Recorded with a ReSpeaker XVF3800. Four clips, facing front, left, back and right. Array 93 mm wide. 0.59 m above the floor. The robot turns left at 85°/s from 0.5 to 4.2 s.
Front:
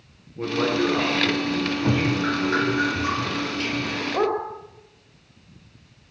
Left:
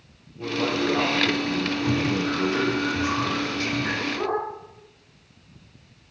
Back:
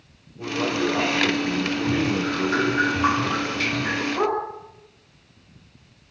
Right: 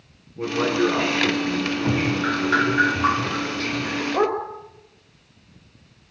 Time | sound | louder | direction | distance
0.4 | a man speaking | right 4 dB, front 2 dB | 45° right | 10 m
1.8 | dripping | right 2 dB, front 2 dB | 35° right | 3 m
4.1 | a dog barking | right 8 dB, front 2 dB | 55° right | 4.5 m